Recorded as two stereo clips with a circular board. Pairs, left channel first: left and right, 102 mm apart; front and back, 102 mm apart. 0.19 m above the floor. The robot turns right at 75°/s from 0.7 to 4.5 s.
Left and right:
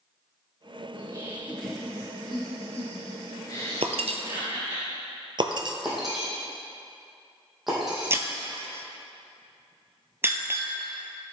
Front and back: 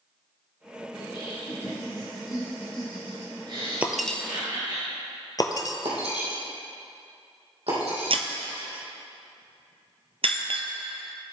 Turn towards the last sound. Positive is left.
turn(degrees=-155)